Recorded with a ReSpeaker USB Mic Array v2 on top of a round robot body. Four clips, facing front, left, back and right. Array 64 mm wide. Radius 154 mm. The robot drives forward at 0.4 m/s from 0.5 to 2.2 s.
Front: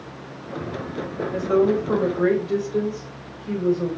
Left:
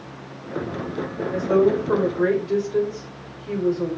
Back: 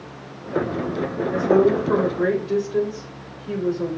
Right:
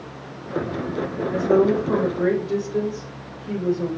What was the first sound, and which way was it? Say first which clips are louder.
A woman speaking: even, back 2 dB; 150° left.